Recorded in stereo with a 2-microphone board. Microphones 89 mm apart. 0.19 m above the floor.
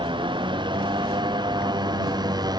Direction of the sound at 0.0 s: 65° right (ahead or behind).